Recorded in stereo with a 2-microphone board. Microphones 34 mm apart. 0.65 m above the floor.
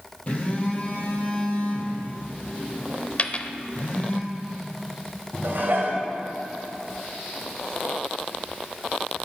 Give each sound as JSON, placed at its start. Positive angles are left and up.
{"t": 0.3, "sound": "a phone buzzing", "side_deg": 35, "distance_m": 3.0}
{"t": 3.2, "sound": "a dropped coin", "side_deg": 35, "distance_m": 0.5}
{"t": 5.4, "sound": "dishes clattering", "side_deg": -70, "distance_m": 1.9}